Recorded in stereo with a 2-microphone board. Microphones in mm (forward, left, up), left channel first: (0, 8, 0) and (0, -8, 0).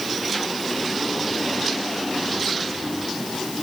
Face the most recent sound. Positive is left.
No sound to turn to.